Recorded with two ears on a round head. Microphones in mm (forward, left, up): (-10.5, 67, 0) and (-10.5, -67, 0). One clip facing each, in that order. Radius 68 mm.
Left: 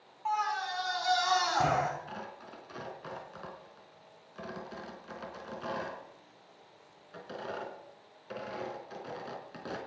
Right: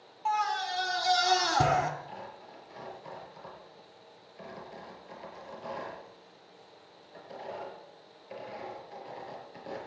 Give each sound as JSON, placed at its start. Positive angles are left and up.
{"t": 0.2, "sound": "a scream", "side_deg": -35, "distance_m": 4.5}
{"t": 2.1, "sound": "tearing paper", "side_deg": 80, "distance_m": 4.0}